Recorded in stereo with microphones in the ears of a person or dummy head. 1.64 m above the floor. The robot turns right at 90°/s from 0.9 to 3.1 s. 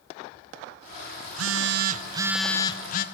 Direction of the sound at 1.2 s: 100° right.